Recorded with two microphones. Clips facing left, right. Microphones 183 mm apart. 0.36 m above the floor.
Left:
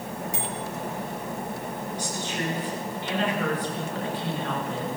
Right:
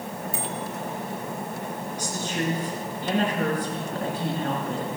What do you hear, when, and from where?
0.3 s a bicycle bell: 70° left (ahead or behind), 5.5 m
2.0 s a woman speaking: 45° right (ahead or behind), 6.5 m